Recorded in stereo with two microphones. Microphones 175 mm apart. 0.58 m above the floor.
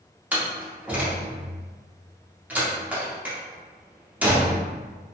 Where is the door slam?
10° right (ahead or behind), 0.8 m.